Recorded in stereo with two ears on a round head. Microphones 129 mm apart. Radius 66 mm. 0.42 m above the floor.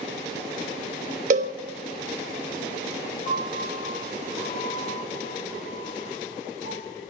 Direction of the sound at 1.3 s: 55° right (ahead or behind).